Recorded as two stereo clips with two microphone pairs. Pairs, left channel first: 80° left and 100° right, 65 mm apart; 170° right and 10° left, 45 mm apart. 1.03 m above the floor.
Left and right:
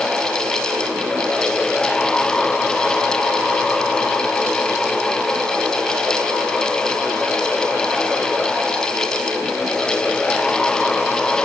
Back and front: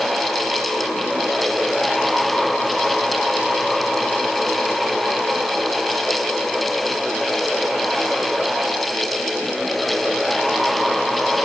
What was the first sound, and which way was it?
Only background noise.